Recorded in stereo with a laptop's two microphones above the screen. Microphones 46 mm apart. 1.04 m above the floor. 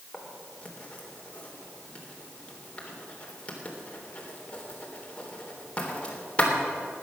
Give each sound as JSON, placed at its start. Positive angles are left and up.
{"t": 0.1, "sound": "writing", "side_deg": 25, "distance_m": 3.5}